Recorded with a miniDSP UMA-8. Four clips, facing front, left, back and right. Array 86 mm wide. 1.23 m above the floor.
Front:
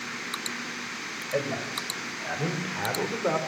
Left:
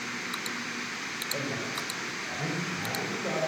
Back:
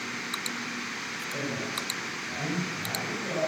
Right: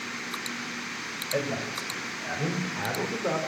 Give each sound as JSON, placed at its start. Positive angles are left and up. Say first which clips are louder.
{"t": 1.3, "sound": "a man speaking", "louder": "right 5 dB, front 5 dB", "azimuth_deg": -40, "distance_m": 5.5}